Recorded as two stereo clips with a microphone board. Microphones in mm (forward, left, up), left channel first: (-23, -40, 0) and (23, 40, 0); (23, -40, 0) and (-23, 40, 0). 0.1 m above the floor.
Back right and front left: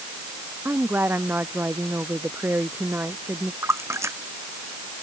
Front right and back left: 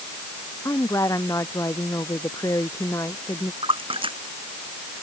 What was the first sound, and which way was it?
A woman speaking, 10° right.